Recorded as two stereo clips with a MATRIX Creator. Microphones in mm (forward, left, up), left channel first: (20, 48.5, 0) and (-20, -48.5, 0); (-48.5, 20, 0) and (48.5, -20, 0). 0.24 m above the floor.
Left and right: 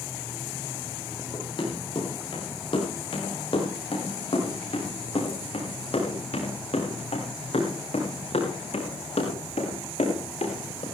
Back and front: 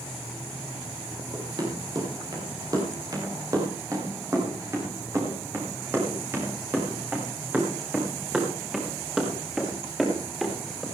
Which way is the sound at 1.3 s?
25° left.